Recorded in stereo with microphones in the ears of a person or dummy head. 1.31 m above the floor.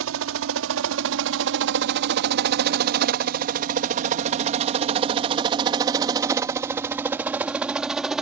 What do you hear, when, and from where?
0.0 s a helicopter: 70° right (ahead or behind); by 8.2 s 5° right (ahead or behind)